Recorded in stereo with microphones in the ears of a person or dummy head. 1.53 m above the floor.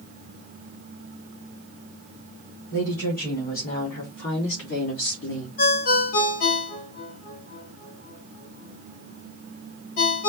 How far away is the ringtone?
About 1.2 m.